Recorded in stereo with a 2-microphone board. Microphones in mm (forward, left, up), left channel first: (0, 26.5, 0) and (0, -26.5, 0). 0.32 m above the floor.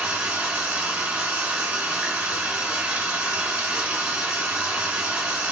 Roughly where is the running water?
Right.